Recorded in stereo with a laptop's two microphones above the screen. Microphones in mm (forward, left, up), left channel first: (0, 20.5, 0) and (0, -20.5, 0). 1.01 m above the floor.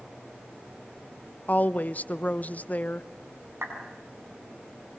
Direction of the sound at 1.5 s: 40° left (ahead or behind).